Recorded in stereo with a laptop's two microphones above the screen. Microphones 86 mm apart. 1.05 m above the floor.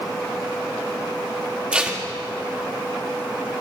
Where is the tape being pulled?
15° right (ahead or behind), 1.3 m.